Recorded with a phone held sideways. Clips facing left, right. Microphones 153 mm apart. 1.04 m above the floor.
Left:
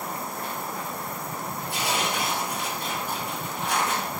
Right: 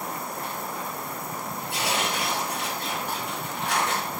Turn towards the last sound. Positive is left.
turn(degrees=-65)  # may be behind; listen again after turning